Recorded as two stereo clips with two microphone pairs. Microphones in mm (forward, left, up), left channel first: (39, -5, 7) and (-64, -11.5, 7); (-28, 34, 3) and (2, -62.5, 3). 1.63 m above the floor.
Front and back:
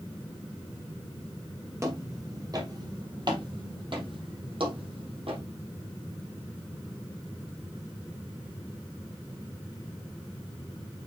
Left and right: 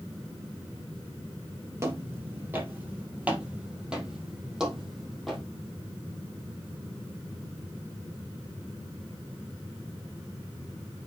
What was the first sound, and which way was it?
Footsteps, 125° right.